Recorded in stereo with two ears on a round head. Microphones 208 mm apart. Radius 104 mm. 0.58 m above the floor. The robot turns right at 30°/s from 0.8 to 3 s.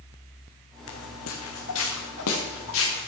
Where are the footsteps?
75° left (ahead or behind), 2 m; by 3.1 s 65° left (ahead or behind), 4.5 m.